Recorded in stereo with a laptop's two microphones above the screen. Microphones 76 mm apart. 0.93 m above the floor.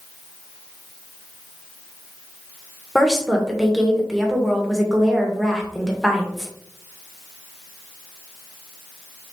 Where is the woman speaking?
5° right (ahead or behind), 0.9 m.